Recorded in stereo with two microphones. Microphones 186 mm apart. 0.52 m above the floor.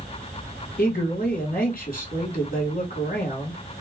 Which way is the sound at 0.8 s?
55° left (ahead or behind).